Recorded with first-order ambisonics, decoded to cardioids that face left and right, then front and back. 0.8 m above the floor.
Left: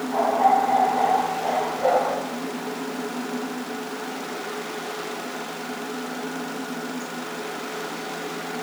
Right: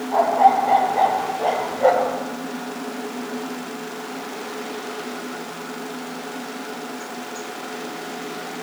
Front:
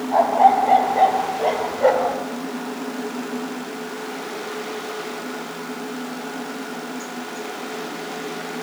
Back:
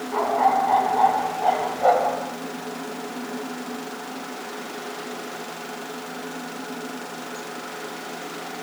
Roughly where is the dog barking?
Ahead.